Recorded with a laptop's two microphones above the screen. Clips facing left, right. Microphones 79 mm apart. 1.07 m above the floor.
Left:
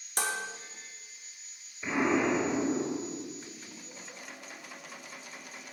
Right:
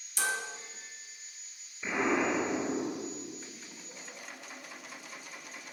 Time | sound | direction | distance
0.2 | dishes clattering | 50° left (ahead or behind) | 1.3 m
1.8 | an explosion | 10° left (ahead or behind) | 3.5 m